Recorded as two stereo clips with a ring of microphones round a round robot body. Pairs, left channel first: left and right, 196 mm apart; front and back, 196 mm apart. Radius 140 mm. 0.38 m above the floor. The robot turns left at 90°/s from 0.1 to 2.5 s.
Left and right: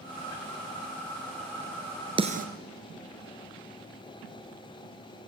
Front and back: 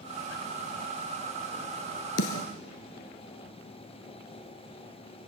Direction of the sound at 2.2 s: 25° right.